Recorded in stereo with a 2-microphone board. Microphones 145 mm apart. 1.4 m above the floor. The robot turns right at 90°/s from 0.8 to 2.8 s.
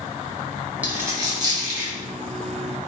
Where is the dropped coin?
10° right (ahead or behind), 1.2 m; by 1.9 s 25° right (ahead or behind), 1.2 m.